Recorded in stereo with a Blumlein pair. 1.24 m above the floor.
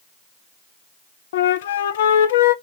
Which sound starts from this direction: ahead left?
A flute, at 1.3 s.